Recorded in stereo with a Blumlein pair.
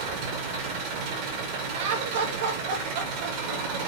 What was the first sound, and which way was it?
An engine running, 45° right.